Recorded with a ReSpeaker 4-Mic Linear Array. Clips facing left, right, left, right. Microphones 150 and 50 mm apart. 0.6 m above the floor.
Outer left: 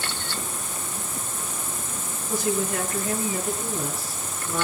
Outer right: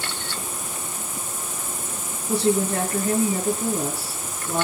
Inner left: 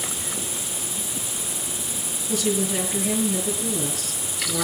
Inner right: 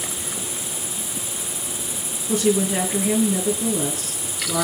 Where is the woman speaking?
40° right (ahead or behind), 6.5 m.